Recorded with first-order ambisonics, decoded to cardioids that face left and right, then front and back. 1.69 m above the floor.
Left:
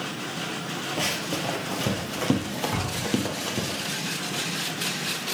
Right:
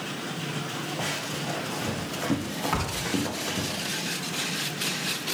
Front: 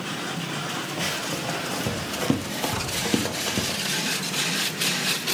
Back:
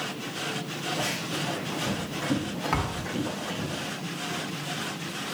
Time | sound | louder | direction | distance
1.0 | running footsteps | left 5 dB, front 2 dB | 70° left | 2.5 m
2.7 | a thud | even, front 2 dB | 150° right | 3 m